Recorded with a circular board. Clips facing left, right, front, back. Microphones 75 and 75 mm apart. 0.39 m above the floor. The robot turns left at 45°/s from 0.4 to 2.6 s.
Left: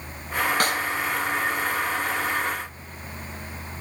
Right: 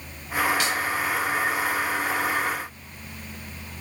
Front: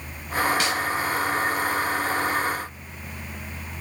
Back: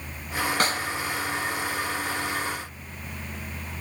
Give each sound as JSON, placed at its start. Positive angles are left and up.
{"t": 0.6, "sound": "a snare drum", "azimuth_deg": 130, "distance_m": 1.0}